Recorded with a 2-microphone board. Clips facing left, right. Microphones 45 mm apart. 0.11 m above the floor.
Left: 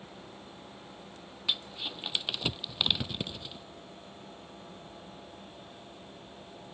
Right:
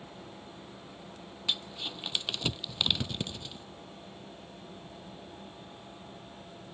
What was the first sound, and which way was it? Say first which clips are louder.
Crumpling: even; 10° left (ahead or behind).